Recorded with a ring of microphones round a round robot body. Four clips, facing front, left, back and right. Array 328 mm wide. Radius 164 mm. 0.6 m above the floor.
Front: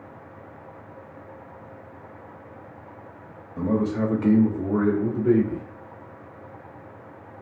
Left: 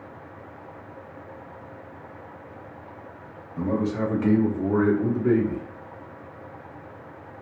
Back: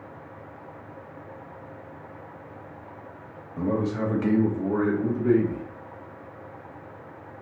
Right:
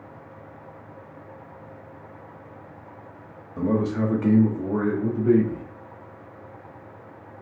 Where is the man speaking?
90° right, 1.1 m; by 5.6 s 110° left, 1.7 m.